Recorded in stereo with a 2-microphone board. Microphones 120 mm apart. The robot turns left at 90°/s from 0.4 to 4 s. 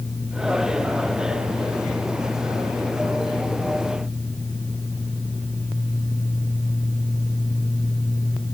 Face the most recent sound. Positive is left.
No sound to turn to.